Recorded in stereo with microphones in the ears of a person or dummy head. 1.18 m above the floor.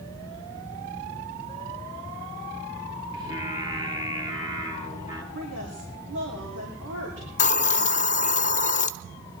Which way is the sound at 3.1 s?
25° right (ahead or behind).